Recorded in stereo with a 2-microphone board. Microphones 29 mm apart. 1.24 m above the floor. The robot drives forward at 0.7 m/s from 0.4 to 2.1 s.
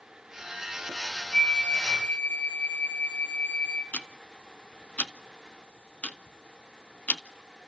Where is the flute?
45° left (ahead or behind), 4 m; by 3.8 s 55° left (ahead or behind), 3.5 m.